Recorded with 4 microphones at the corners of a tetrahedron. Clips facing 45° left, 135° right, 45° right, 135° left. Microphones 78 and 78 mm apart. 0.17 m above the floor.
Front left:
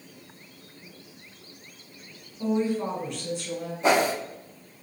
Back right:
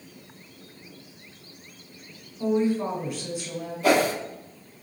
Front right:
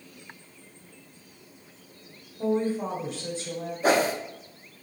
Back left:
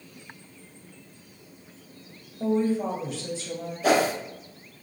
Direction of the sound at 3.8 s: 10° right.